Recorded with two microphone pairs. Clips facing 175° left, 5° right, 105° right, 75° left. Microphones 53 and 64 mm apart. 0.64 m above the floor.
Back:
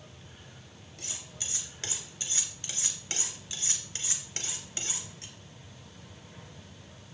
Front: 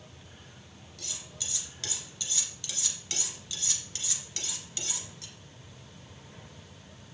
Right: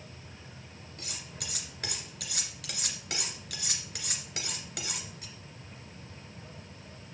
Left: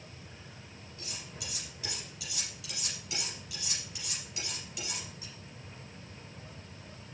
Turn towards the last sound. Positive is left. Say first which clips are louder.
# even, right 1 dB
turn(degrees=-130)